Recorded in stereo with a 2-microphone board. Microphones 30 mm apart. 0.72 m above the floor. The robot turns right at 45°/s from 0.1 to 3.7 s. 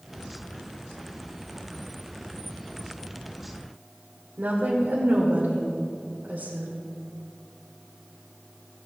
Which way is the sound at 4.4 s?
75° right (ahead or behind).